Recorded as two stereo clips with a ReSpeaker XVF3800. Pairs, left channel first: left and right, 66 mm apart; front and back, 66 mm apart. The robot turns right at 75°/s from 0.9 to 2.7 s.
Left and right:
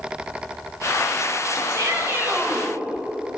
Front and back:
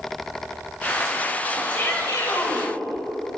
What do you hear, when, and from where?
1.7 s a shout: 70° right, 6.5 m; by 2.7 s 5° left, 6.5 m